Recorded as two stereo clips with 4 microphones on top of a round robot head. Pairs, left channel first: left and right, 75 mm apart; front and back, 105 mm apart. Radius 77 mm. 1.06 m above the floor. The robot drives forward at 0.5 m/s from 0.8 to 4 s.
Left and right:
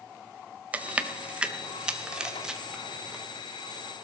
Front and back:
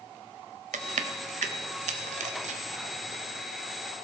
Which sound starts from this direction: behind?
Chewing, at 0.7 s.